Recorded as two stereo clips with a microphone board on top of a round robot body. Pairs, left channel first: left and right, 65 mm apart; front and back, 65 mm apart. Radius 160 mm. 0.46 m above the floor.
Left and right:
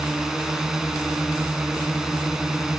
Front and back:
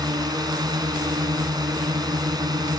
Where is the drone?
170° right.